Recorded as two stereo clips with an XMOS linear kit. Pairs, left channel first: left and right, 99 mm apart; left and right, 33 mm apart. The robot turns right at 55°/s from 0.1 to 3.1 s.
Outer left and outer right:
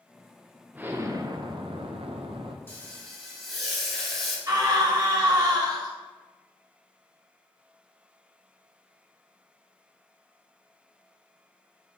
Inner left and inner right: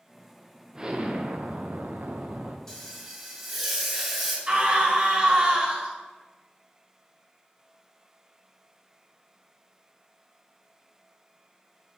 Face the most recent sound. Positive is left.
turn(degrees=-40)  # may be behind; listen again after turning